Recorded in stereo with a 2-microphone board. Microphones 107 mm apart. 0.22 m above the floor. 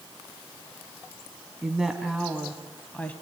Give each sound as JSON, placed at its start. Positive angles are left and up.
{"t": 1.6, "sound": "a woman speaking", "side_deg": -10, "distance_m": 1.9}